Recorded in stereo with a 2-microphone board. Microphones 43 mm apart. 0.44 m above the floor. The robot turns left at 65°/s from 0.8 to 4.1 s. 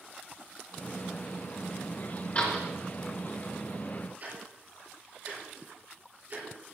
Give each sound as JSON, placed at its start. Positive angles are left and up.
{"t": 2.4, "sound": "a door slam", "side_deg": 30, "distance_m": 3.5}
{"t": 4.2, "sound": "ticking", "side_deg": -40, "distance_m": 6.0}